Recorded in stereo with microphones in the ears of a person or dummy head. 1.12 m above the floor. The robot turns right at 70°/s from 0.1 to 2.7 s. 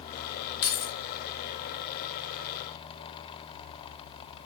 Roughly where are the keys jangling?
Left.